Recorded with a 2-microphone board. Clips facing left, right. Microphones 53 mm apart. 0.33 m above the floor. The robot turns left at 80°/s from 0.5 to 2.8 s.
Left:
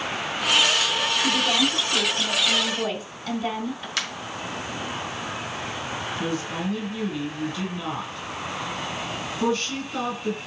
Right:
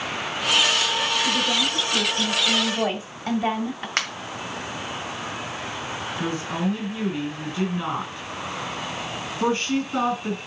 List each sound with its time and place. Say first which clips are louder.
1.2 s a woman speaking: left 1 dB; 80° left, 2.5 m; by 3.9 s 45° right, 2.5 m
4.0 s a finger snap: right 4 dB; 40° right (ahead or behind), 1.8 m
6.2 s a woman speaking: right 3 dB; 25° right (ahead or behind), 2.5 m